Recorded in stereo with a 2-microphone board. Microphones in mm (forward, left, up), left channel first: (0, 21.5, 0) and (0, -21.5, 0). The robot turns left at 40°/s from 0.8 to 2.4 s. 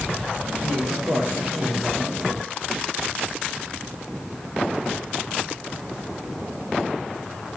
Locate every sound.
0.6 s a man speaking: 95° right, 9 m; by 2.5 s 160° right, 9 m